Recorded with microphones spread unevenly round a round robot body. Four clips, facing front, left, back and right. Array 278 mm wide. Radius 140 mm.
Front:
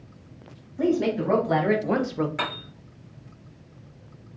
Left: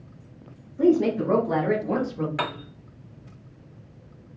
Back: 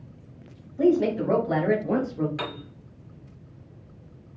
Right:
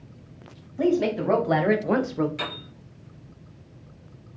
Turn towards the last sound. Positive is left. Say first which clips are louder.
# left 5 dB, front 3 dB
turn(degrees=80)